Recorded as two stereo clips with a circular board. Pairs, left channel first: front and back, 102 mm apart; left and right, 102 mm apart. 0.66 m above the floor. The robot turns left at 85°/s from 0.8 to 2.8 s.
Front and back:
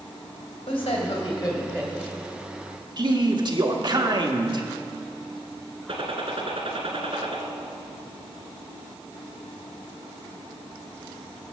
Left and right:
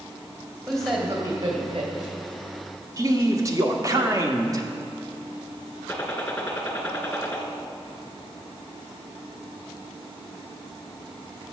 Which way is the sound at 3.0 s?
145° right.